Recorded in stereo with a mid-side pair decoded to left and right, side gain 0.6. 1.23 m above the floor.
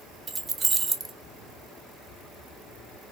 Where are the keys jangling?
30° right, 0.9 m.